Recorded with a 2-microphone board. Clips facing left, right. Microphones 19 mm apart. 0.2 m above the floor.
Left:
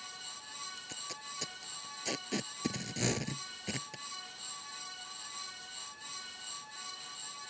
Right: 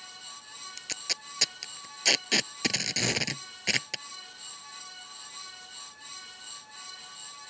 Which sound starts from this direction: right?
Tape being pulled, at 0.8 s.